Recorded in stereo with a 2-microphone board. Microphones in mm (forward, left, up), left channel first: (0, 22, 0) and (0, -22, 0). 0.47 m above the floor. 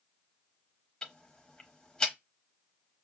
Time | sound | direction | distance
1.0 | ticking | 20° left (ahead or behind) | 0.7 m